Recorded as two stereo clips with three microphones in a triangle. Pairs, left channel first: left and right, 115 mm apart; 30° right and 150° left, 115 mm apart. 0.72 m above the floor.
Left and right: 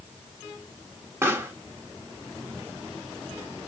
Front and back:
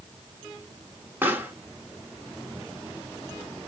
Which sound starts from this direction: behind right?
A pop, at 1.2 s.